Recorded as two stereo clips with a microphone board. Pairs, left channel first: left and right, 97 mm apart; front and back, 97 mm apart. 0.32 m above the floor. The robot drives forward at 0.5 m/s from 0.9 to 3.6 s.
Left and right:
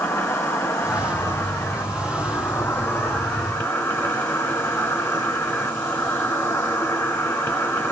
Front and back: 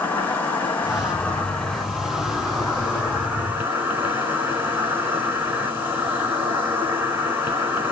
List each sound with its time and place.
0.0 s an insect: 50° left, 2 m; by 7.9 s 130° left, 2 m